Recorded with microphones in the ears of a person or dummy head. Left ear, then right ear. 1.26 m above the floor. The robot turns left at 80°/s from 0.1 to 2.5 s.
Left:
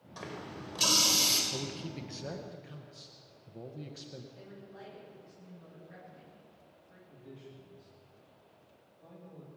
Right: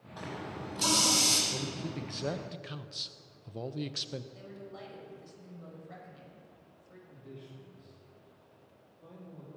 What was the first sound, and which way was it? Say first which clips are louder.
A running tap: right 2 dB; 105° left.